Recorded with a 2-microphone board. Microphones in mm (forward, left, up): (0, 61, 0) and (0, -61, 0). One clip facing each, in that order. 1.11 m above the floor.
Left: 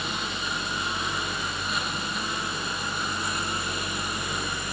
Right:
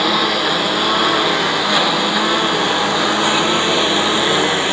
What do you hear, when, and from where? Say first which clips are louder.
0.0 s a lawn mower: right 16 dB; 80° right; by 4.7 s 85° right